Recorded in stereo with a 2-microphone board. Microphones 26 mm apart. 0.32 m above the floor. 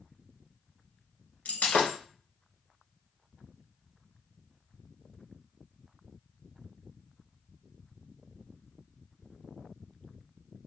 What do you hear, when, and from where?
1.4 s breaking glass: 80° left, 1.4 m